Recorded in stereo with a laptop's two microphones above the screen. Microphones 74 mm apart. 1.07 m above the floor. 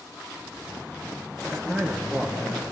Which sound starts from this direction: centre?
A man speaking, at 1.5 s.